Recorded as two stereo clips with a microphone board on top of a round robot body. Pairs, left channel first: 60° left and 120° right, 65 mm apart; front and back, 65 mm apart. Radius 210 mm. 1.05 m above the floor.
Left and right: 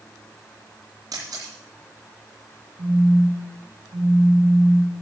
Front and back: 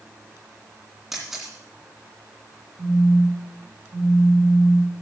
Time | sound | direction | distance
1.1 | a camera shutter | 95° right | 2.5 m
2.8 | a phone buzzing | 135° right | 2.5 m